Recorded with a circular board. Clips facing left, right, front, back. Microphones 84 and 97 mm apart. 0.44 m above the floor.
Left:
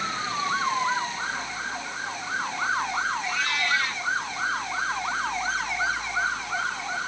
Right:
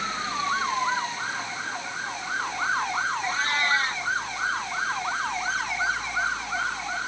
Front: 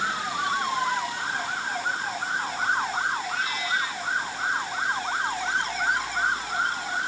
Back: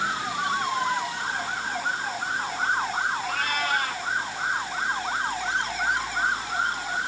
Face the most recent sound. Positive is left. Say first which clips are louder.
# right 2 dB, back 2 dB
turn(degrees=-145)